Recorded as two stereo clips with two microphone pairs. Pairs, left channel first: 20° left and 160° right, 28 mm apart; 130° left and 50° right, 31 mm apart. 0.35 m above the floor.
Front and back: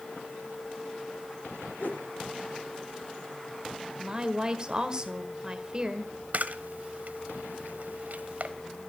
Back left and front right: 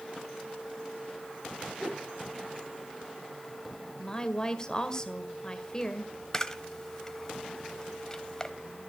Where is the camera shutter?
160° right, 0.9 m.